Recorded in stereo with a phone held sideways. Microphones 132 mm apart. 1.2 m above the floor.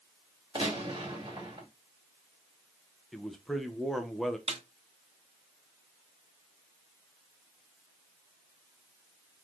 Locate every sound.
0.6 s a gunshot: 35° right (ahead or behind), 2.5 m
3.1 s a man speaking: centre (ahead or behind), 0.9 m
4.5 s a snare drum: 55° right (ahead or behind), 0.6 m